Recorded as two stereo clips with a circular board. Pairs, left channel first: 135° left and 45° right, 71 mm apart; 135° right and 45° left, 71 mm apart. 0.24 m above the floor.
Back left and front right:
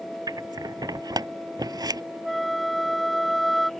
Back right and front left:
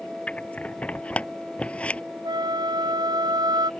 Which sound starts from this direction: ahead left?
A flute, at 2.2 s.